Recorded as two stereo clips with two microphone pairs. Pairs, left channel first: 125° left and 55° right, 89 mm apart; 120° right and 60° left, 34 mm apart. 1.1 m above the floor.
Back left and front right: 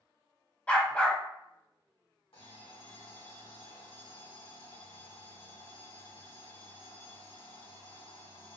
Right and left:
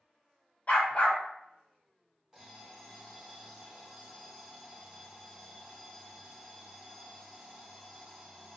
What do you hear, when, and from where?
0.7 s a dog barking: 160° right, 1.2 m
2.3 s an alarm clock: 135° left, 1.7 m